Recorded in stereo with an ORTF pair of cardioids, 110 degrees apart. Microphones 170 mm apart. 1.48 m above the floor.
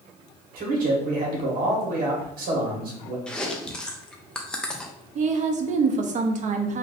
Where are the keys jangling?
No keys jangling in this recording.